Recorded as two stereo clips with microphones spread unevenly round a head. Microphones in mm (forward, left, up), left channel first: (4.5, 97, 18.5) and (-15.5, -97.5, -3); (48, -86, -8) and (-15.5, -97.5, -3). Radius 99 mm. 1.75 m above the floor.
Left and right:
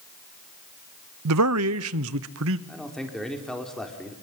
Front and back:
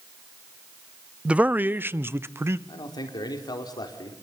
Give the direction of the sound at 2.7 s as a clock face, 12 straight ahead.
12 o'clock.